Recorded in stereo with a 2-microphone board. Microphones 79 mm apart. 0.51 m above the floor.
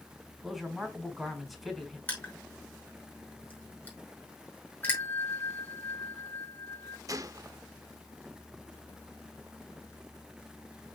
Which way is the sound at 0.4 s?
Centre (ahead or behind).